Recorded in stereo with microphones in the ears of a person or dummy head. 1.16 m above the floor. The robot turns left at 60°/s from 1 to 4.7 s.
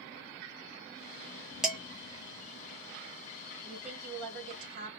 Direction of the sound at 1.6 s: 5° right (ahead or behind).